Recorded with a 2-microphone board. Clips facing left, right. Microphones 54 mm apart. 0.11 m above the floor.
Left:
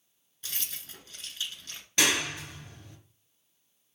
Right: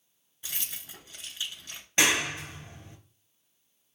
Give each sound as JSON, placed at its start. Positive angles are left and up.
{"t": 0.4, "sound": "keys jangling", "side_deg": -15, "distance_m": 0.7}
{"t": 2.0, "sound": "a clap", "side_deg": -30, "distance_m": 1.1}